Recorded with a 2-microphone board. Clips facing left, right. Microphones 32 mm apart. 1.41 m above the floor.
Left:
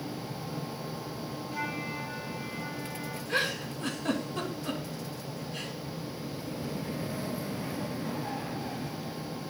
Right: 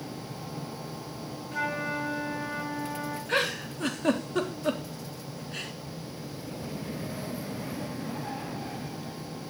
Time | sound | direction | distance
1.5 | a flute | 70° right (ahead or behind) | 10 m
3.3 | a giggle | 80° right | 3 m